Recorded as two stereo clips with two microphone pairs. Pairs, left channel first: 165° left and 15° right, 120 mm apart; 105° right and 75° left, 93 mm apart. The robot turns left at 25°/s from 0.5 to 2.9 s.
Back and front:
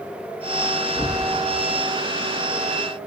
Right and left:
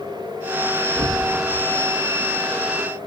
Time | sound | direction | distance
0.9 | knocking | 100° left | 5.5 m